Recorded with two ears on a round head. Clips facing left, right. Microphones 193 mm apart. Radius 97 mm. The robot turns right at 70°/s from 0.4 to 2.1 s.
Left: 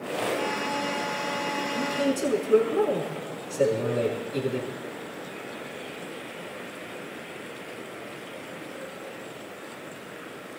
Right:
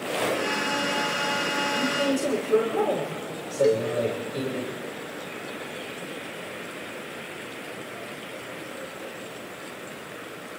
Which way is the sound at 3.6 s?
45° right (ahead or behind).